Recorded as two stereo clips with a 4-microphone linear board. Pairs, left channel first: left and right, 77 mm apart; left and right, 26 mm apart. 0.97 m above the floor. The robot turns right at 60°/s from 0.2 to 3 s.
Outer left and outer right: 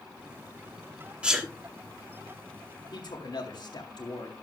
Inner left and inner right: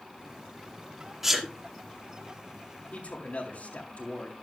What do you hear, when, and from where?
1.2 s a sneeze: 15° right (ahead or behind), 1.6 m; by 1.5 s centre (ahead or behind), 1.6 m
2.9 s a man speaking: 70° left (ahead or behind), 1.8 m